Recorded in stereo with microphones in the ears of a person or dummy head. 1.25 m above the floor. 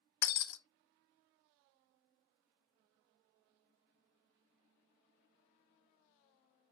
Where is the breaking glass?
60° left (ahead or behind), 0.5 m.